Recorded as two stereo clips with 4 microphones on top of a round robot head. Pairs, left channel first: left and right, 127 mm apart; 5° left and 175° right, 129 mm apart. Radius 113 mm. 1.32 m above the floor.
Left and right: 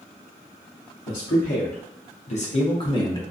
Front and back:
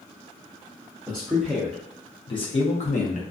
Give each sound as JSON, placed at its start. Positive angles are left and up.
{"t": 1.1, "sound": "a man speaking", "azimuth_deg": 110, "distance_m": 0.9}